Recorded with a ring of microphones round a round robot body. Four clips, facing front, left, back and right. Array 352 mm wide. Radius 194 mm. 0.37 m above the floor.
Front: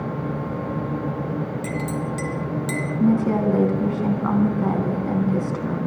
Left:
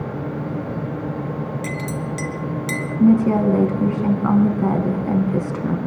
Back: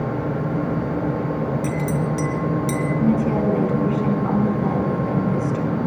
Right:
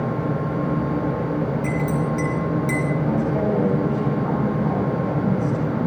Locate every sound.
1.6 s a clink: 85° left, 2.5 m
3.0 s a woman speaking: 75° left, 3.5 m